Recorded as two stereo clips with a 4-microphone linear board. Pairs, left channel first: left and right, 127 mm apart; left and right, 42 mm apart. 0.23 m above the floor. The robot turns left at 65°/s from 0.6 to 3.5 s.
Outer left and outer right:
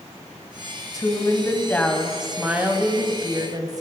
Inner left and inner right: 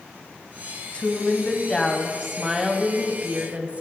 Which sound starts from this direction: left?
A woman speaking, at 0.9 s.